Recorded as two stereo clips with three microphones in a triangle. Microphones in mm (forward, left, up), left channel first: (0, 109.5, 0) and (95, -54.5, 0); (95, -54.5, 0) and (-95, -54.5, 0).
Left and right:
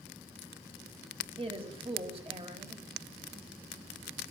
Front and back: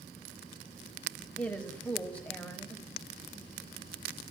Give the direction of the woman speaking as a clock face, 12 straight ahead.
3 o'clock.